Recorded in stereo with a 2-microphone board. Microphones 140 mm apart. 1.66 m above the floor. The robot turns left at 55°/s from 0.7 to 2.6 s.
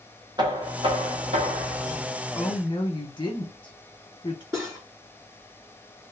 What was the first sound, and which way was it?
Knocking, 35° right.